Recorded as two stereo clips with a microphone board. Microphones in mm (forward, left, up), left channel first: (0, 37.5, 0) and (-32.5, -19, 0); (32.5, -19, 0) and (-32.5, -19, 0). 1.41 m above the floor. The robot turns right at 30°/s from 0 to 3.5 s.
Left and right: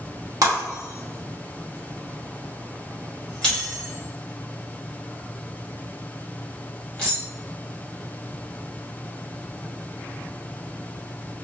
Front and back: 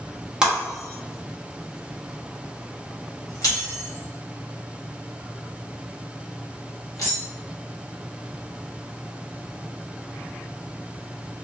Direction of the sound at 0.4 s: 100° right.